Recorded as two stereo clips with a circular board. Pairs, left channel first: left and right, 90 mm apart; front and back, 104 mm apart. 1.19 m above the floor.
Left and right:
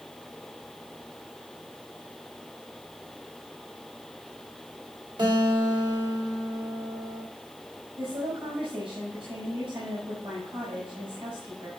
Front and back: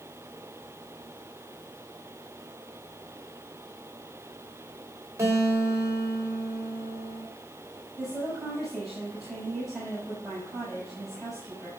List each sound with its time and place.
5.2 s a guitar: 115° right, 3.5 m
8.0 s a woman speaking: 90° right, 5.5 m